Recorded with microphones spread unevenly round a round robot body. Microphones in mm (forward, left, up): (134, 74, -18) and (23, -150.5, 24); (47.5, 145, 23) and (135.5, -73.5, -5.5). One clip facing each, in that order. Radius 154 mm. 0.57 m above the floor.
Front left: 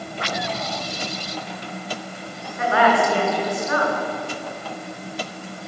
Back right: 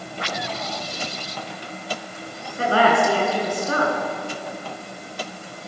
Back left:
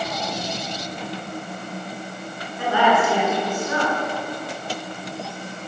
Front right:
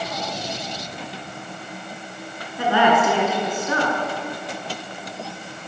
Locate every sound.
2.6 s a woman speaking: 60° right, 8.5 m